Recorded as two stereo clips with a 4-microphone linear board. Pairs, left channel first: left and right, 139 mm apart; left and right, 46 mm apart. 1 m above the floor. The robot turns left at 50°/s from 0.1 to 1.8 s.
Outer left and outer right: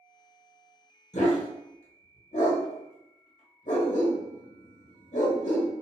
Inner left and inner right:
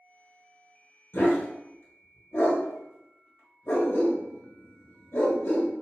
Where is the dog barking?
55° left (ahead or behind), 1.1 m; by 5.7 s 60° left (ahead or behind), 1.1 m.